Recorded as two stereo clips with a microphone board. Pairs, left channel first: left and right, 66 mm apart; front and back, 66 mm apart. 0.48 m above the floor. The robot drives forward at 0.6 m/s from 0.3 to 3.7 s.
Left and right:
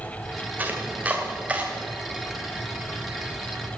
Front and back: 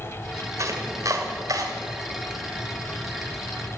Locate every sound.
0.6 s chopping: 150° right, 2.0 m; by 1.7 s 160° right, 2.5 m